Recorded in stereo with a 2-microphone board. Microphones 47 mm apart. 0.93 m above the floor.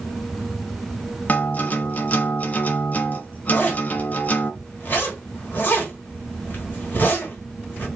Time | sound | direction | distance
1.3 | a guitar | 35° left (ahead or behind) | 0.5 m
3.5 | a zipper | 40° left (ahead or behind) | 1.1 m